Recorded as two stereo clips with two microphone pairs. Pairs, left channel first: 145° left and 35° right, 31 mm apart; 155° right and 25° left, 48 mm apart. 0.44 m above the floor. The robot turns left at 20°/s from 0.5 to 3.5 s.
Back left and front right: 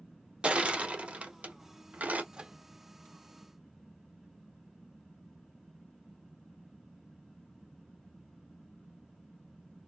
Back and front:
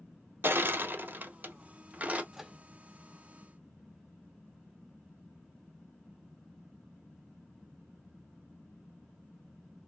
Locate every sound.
0.4 s crushing: 5° left, 1.2 m; by 2.2 s 30° right, 1.2 m
2.3 s a microwave: 50° right, 0.8 m; by 2.6 s 55° right, 0.8 m